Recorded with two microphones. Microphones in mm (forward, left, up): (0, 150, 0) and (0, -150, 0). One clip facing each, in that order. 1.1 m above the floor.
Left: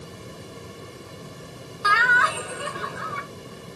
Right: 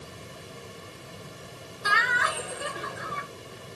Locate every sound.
1.8 s laughter: 85° left, 3.5 m